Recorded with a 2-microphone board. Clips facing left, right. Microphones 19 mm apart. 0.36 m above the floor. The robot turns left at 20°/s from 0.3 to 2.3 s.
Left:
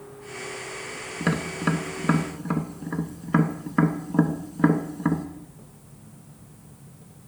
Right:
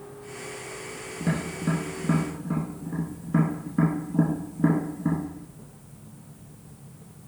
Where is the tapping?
80° left, 0.6 m; by 5.3 s 65° left (ahead or behind), 0.6 m.